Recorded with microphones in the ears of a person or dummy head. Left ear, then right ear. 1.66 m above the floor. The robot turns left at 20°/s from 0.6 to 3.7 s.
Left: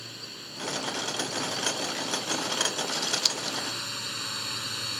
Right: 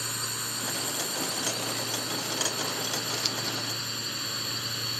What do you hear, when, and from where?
0.0 s a drone: 135° right; by 5.0 s 160° left
2.9 s scissors: 30° left (ahead or behind); by 3.6 s 15° left (ahead or behind)